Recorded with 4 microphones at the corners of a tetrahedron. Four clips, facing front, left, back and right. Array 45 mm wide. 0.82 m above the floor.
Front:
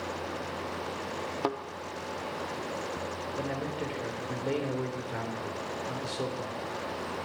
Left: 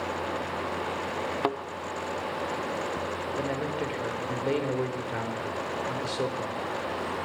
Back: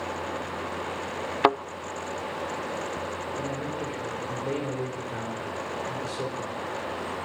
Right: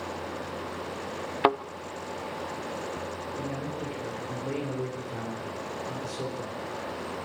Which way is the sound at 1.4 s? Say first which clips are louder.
Right 7 dB, back 11 dB; 155° right.